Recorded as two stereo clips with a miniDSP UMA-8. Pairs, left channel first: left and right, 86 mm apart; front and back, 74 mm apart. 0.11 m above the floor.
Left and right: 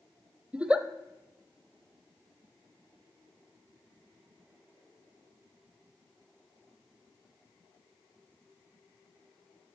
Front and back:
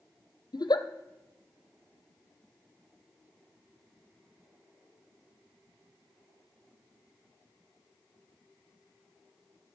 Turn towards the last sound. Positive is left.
turn(degrees=-15)